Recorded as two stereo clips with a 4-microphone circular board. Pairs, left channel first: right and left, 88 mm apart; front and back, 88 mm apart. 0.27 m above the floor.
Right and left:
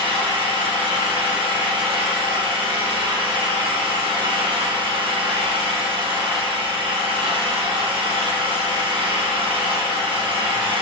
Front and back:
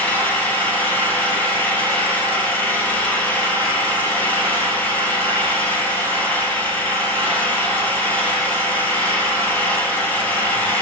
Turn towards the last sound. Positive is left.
turn(degrees=70)